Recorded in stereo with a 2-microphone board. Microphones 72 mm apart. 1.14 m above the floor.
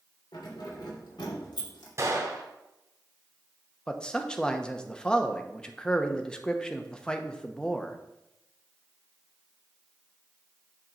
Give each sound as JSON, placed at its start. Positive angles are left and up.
{"t": 0.3, "sound": "keys jangling", "side_deg": 85, "distance_m": 3.0}
{"t": 2.0, "sound": "a gunshot", "side_deg": -45, "distance_m": 1.6}
{"t": 3.9, "sound": "a man speaking", "side_deg": 10, "distance_m": 0.8}